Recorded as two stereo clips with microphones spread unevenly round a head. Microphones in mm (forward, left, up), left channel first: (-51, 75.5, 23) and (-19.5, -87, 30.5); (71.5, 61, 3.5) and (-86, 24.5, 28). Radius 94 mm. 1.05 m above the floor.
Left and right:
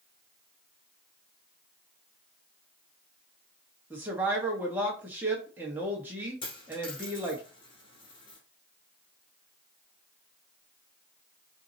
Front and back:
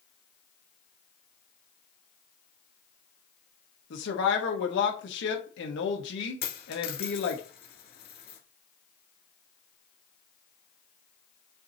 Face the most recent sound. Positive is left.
turn(degrees=35)